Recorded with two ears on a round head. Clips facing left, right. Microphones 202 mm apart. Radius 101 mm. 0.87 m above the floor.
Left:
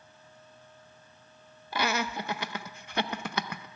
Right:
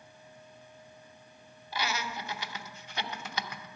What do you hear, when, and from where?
1.7 s laughter: 45° left (ahead or behind), 0.5 m